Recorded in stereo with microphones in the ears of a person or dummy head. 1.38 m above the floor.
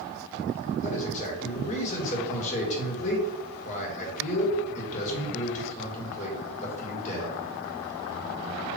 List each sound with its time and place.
0.8 s a man speaking: 40° left (ahead or behind), 2 m